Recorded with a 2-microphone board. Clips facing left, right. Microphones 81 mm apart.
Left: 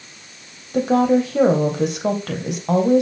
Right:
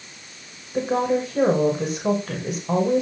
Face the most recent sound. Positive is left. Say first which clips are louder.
# left 5 dB
turn(degrees=65)  # may be behind; listen again after turning